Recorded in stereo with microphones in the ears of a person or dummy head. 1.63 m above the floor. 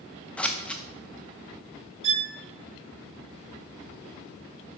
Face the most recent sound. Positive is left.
turn(degrees=-35)  # may be behind; listen again after turning